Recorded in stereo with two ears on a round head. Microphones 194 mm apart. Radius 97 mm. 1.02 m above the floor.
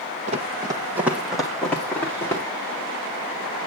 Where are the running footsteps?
30° right (ahead or behind), 1.7 m; by 2.4 s 10° left (ahead or behind), 4 m.